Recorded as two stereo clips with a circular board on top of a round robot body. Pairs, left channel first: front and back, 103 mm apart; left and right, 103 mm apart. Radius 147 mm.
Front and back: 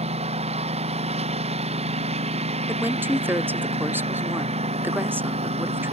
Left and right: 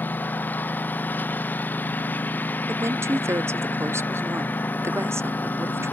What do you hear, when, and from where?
0.0 s a lawn mower: 165° left
2.7 s a woman speaking: 130° right